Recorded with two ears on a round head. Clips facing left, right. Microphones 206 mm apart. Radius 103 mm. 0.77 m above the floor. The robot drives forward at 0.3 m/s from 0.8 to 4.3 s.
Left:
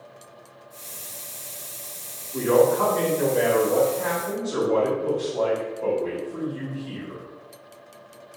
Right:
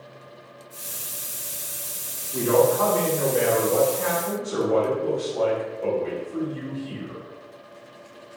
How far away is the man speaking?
About 1.6 m.